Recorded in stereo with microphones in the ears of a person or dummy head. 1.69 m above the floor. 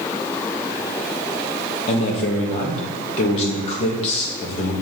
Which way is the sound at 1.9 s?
35° left (ahead or behind).